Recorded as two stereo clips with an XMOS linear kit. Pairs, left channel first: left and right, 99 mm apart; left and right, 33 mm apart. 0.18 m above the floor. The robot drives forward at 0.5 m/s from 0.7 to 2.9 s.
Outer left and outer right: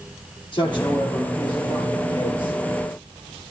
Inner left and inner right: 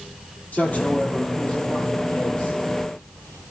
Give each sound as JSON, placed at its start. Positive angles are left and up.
{"t": 0.5, "sound": "a man speaking", "side_deg": 50, "distance_m": 6.0}